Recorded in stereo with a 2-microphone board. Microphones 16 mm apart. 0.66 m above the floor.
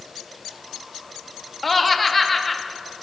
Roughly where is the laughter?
Centre.